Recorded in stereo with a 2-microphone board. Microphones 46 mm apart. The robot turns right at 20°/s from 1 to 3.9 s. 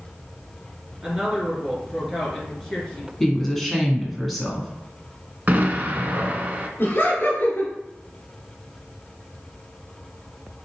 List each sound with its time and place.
1.0 s a woman speaking: 20° right, 2.5 m; by 3.1 s 20° left, 2.5 m
3.2 s a woman speaking: 10° left (ahead or behind), 1.4 m; by 4.7 s centre (ahead or behind), 1.4 m
5.5 s an explosion: 40° right (ahead or behind), 0.7 m
6.8 s laughter: 50° left (ahead or behind), 2.0 m